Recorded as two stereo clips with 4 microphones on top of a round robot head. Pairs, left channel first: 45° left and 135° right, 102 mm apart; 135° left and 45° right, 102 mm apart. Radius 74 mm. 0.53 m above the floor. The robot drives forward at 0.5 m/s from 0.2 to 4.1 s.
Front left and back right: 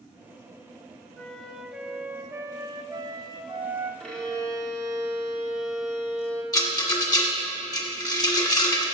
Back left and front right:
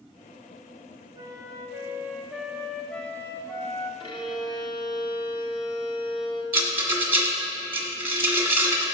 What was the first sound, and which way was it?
A flute, 30° right.